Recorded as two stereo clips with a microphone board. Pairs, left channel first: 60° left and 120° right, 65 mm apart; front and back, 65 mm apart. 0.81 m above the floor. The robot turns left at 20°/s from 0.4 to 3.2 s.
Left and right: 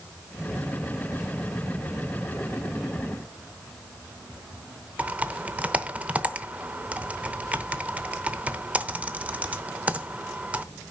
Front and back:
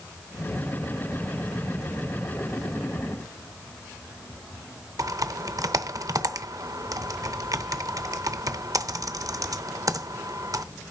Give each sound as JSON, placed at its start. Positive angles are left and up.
{"t": 5.0, "sound": "typing on a keyboard", "azimuth_deg": 175, "distance_m": 0.7}